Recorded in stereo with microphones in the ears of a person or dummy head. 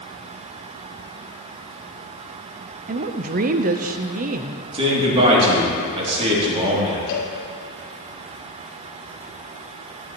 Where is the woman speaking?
45° right (ahead or behind), 0.6 m.